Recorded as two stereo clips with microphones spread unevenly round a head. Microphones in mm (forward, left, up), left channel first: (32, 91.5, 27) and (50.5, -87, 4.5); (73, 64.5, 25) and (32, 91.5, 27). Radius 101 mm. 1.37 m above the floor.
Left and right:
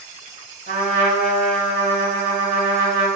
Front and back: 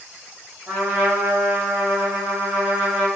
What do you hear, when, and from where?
0.7 s a trumpet: 135° right, 0.9 m